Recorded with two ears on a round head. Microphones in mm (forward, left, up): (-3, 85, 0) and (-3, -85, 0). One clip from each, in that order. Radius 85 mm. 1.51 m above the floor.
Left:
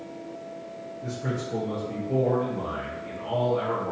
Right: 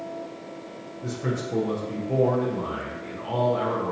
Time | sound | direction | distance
1.0 | a man speaking | 50° right (ahead or behind) | 0.8 m